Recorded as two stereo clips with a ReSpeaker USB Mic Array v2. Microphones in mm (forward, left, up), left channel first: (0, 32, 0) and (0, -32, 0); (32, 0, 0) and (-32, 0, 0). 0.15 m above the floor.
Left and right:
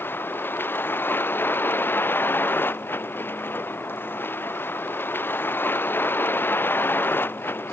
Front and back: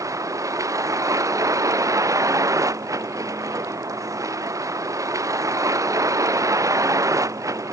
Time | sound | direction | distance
0.0 | a vehicle | 145° left | ?